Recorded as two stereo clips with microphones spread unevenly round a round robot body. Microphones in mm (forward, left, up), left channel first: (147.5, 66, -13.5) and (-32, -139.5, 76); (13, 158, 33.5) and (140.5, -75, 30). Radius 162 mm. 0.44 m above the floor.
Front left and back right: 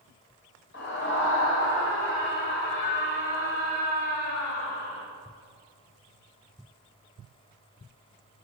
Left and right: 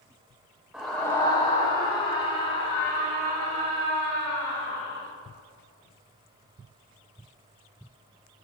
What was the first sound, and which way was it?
A scream, 25° left.